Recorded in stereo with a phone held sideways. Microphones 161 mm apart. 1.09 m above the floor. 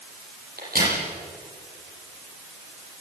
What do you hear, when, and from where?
0.6 s a crack: 70° right (ahead or behind), 9 m